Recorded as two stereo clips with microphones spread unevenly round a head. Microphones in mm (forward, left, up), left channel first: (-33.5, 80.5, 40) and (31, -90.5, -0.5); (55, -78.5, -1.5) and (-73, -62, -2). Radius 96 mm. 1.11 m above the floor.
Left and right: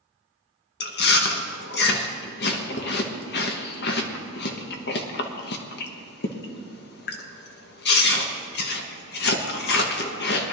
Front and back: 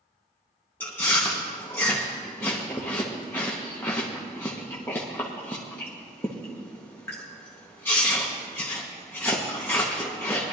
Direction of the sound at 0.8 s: 70° left.